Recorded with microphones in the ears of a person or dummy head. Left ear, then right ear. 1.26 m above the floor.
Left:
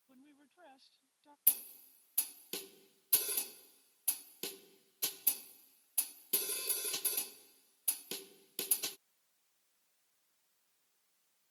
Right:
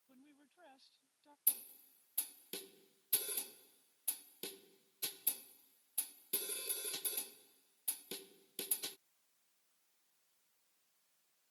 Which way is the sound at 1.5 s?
15° left (ahead or behind).